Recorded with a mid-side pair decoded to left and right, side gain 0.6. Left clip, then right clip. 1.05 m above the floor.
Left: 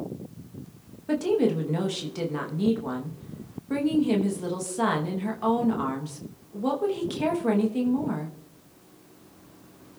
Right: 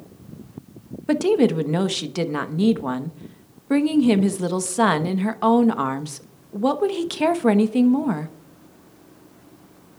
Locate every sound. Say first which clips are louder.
1.1 s a woman speaking: right 5 dB; 45° right, 0.9 m